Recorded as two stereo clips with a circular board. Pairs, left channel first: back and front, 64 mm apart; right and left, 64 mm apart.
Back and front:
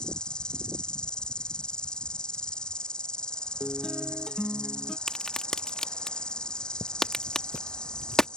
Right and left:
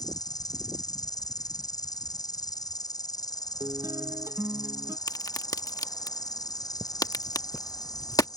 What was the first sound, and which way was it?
An insect, 105° right.